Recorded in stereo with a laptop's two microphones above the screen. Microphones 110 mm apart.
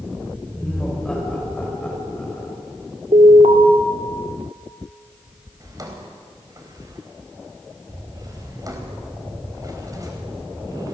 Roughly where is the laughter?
Centre.